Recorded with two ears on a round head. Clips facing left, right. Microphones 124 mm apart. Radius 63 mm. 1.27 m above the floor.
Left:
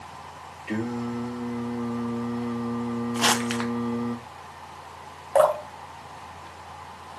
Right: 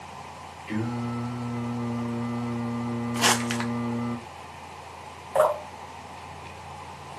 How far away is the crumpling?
About 0.5 m.